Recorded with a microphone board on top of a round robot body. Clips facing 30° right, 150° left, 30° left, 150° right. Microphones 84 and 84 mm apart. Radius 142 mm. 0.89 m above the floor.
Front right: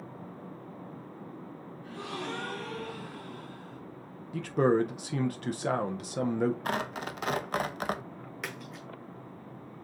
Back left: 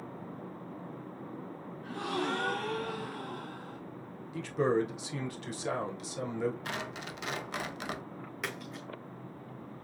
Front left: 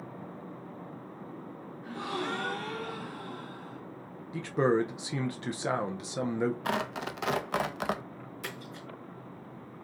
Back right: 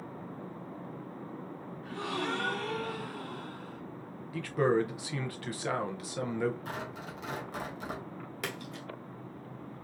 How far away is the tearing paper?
About 0.6 m.